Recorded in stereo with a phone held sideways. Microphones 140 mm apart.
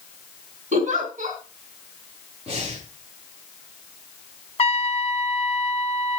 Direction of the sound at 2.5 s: 45° right (ahead or behind).